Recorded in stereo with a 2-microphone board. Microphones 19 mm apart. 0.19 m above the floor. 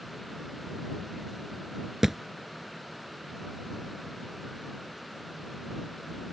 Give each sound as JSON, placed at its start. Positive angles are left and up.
{"t": 2.0, "sound": "a thud", "side_deg": -25}